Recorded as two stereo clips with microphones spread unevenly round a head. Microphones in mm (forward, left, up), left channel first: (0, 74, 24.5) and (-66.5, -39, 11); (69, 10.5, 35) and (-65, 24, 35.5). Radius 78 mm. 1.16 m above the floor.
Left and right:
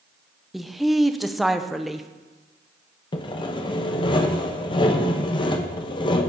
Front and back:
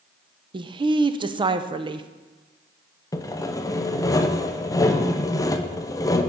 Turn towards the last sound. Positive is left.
turn(degrees=35)